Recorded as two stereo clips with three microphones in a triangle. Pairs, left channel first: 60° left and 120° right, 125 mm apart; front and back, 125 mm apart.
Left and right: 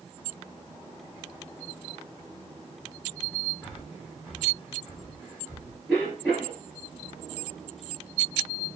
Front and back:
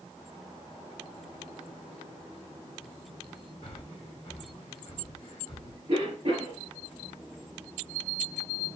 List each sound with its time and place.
3.6 s breathing: 45° right, 2.5 m
5.9 s a cough: 160° left, 3 m